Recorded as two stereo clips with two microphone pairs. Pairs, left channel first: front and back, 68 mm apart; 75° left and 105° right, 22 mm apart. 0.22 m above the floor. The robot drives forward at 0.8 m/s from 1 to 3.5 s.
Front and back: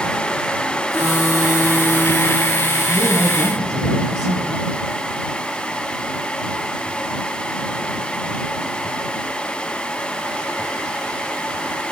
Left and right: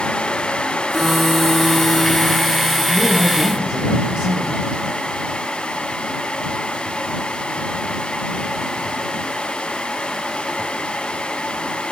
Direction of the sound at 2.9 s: 145° right.